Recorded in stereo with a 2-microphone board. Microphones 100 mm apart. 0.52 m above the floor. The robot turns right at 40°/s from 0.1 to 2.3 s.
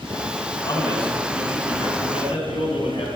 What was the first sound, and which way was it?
A man speaking, 40° left.